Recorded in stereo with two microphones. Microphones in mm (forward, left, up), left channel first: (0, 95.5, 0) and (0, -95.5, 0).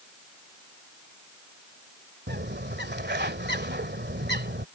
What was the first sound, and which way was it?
A bird, 65° right (ahead or behind).